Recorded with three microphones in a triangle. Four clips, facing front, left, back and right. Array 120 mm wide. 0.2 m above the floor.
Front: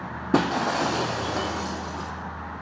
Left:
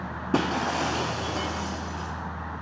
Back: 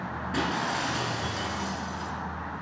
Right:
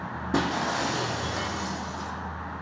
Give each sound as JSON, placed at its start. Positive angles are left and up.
{"t": 0.3, "sound": "breaking glass", "azimuth_deg": 15, "distance_m": 3.0}